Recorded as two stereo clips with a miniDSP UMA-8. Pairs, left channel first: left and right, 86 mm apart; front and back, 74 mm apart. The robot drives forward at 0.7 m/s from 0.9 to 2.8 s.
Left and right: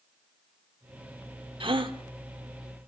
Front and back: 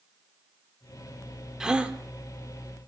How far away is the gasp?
About 1.2 m.